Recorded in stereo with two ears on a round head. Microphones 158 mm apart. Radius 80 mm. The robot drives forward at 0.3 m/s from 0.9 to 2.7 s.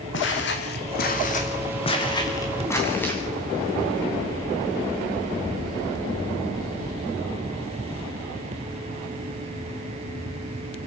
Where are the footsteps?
75° left (ahead or behind), 3 m; by 3.2 s 10° left (ahead or behind), 4.5 m.